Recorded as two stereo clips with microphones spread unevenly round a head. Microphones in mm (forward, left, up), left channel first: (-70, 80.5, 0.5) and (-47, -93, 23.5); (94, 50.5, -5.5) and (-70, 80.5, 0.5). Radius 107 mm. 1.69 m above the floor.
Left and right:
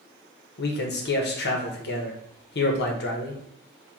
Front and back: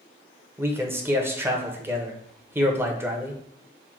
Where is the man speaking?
100° left, 0.9 m.